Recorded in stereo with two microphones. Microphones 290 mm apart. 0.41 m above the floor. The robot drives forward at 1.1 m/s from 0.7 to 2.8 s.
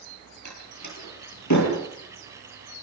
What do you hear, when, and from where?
0.5 s a door slam: 80° left, 7 m; by 1.8 s 75° left (ahead or behind), 7.5 m